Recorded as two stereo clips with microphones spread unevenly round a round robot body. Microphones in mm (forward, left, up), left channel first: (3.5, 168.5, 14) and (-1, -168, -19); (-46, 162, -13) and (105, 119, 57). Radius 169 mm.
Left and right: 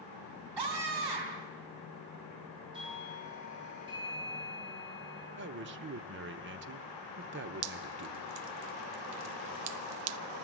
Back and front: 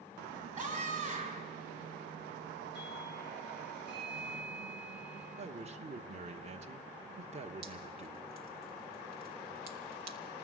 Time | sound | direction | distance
0.6 | a scream | 105° right | 4 m
2.7 | a doorbell | 165° right | 8 m
5.4 | a man speaking | 85° right | 0.9 m
7.6 | dripping | 60° right | 0.5 m